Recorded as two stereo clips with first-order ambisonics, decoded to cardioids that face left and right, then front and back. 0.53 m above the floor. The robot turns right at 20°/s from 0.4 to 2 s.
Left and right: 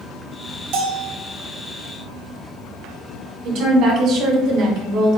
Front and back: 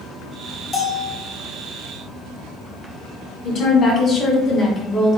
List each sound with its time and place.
0.7 s a bell: 70° right, 1.2 m; by 1.2 s 65° right, 1.2 m
3.4 s a woman speaking: 50° right, 1.9 m